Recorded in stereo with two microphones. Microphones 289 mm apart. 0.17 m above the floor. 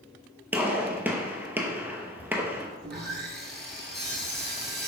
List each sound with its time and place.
0.5 s a gunshot: 5° right (ahead or behind), 0.8 m
2.8 s sawing: 35° right (ahead or behind), 0.7 m